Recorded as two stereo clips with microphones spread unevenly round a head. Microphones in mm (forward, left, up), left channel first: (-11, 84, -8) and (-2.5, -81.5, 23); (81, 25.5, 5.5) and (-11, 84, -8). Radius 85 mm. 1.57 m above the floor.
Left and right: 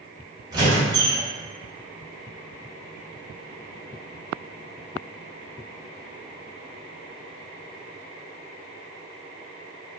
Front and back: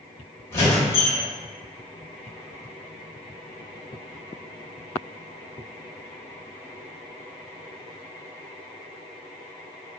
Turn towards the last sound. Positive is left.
turn(degrees=-60)